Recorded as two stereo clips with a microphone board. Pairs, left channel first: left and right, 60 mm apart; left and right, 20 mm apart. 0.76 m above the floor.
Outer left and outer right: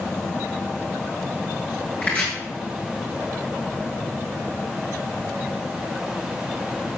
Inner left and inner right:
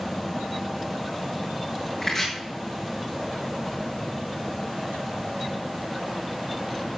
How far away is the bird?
No bird in this recording.